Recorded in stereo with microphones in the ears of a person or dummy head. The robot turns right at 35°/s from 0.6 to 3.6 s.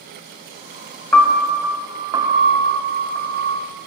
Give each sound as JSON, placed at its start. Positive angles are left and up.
{"t": 1.1, "sound": "a piano", "azimuth_deg": 165, "distance_m": 0.7}